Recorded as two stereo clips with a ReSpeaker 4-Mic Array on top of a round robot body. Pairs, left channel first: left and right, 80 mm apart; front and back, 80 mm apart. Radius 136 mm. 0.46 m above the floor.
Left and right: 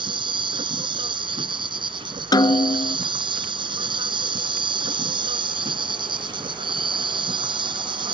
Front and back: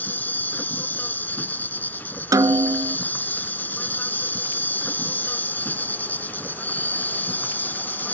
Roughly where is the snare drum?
Behind left.